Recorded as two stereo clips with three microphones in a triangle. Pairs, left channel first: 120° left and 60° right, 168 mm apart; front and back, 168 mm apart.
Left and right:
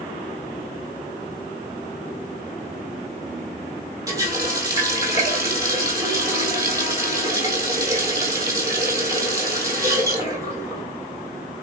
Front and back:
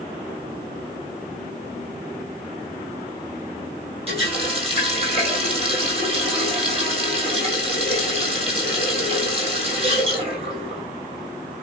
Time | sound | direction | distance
4.1 | a running tap | 130° right | 2.5 m